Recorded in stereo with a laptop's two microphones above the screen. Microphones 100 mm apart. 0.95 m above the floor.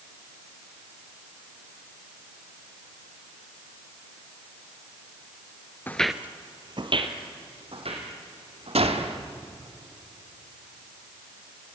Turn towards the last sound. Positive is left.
turn(degrees=-85)